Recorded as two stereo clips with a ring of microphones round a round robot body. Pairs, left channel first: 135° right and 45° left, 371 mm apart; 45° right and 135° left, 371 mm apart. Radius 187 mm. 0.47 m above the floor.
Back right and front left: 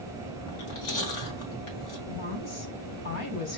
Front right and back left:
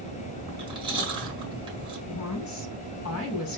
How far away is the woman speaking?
About 4 m.